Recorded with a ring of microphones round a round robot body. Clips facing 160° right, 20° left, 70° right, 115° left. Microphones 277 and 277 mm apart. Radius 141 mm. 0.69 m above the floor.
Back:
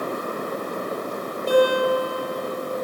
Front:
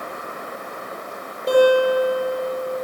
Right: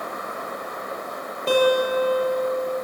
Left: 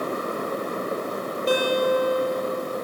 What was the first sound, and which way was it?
A guitar, 70° right.